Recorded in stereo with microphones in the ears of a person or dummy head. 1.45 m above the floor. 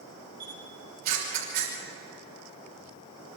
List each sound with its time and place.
0.4 s a camera shutter: 45° right (ahead or behind), 6.5 m